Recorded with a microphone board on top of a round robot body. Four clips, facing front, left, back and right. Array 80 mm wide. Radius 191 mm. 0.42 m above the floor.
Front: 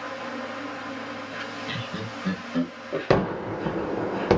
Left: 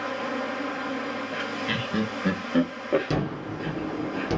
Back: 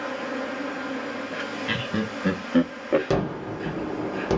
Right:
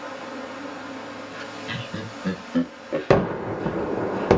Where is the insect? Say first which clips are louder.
Left 4 dB, back 3 dB; 150° left, 3 m.